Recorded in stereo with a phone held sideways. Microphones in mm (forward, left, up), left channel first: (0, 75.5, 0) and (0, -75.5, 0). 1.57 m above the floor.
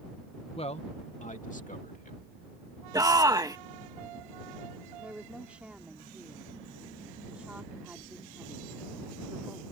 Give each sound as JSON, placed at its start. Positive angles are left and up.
{"t": 0.6, "sound": "a man speaking", "side_deg": 40}
{"t": 2.9, "sound": "a shout", "side_deg": -25}
{"t": 5.0, "sound": "a woman speaking", "side_deg": -10}